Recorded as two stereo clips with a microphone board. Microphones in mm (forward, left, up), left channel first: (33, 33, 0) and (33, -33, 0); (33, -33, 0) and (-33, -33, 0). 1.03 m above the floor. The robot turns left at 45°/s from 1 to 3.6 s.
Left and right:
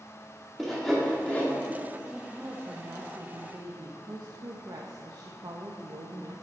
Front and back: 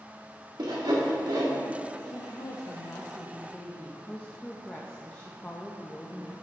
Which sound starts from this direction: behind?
Sawing, at 0.6 s.